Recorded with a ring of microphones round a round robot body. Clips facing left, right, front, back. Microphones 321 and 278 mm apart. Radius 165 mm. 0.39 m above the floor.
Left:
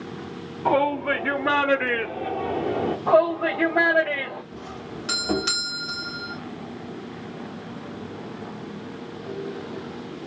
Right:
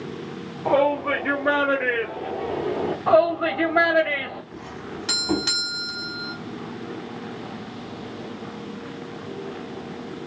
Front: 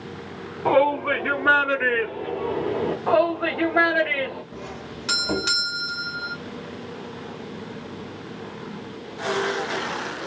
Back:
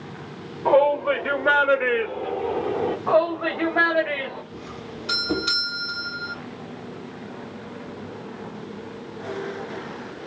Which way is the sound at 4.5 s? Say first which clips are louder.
Right 1 dB, even; 15° right.